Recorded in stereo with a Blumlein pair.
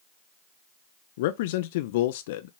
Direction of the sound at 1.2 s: 55° left.